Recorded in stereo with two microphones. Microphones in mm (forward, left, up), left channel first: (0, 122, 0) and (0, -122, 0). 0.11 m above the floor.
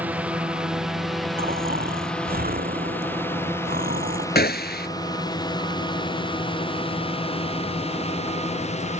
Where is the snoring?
40° right (ahead or behind).